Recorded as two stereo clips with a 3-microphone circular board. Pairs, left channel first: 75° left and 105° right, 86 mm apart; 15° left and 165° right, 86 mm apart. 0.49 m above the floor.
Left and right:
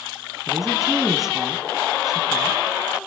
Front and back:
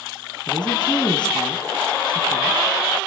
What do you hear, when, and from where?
0.5 s a woman speaking: 20° right, 4.5 m